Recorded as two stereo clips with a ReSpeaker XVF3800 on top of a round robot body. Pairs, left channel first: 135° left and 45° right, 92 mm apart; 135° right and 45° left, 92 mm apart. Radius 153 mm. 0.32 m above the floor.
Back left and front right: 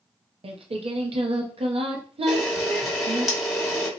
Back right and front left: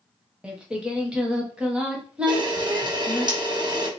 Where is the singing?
35° right, 0.8 m.